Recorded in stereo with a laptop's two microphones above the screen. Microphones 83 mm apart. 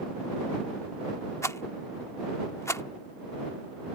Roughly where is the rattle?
Left.